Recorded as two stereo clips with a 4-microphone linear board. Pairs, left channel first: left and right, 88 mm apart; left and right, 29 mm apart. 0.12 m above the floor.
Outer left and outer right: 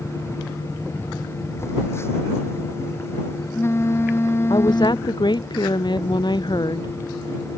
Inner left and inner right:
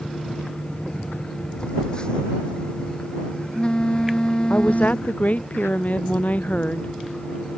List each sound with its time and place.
1.6 s a phone buzzing: 30° left (ahead or behind)
4.5 s a woman speaking: 60° left (ahead or behind)